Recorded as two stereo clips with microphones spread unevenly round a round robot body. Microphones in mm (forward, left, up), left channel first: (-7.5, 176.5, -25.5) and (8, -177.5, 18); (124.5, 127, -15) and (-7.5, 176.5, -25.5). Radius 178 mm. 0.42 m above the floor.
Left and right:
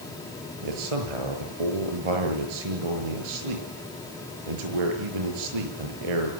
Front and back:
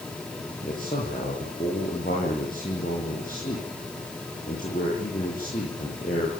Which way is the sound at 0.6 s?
90° right.